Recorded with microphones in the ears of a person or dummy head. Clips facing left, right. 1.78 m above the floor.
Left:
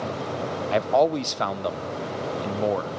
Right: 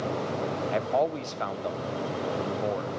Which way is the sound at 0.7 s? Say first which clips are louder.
Left 7 dB; 60° left (ahead or behind).